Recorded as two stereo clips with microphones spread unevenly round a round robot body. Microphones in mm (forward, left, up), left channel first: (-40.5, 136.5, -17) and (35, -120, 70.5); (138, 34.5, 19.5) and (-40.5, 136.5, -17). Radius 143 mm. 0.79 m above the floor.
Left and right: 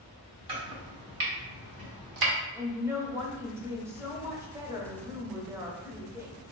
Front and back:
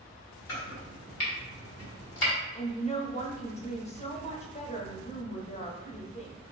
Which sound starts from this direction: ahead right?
Chopping, at 0.5 s.